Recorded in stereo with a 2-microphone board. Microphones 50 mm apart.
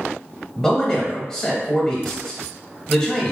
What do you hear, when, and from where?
0.6 s a man speaking: 5° left (ahead or behind), 1.0 m